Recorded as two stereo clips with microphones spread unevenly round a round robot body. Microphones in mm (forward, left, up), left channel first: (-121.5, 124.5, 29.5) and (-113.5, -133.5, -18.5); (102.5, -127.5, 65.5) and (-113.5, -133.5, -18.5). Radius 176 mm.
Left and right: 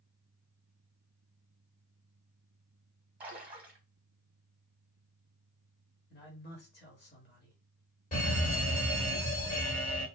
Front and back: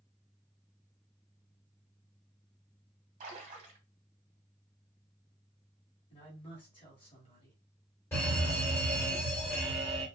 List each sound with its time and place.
3.2 s a splash: 165° right, 1.5 m
6.1 s a man speaking: 85° left, 1.0 m
8.1 s a fire alarm: 120° left, 1.8 m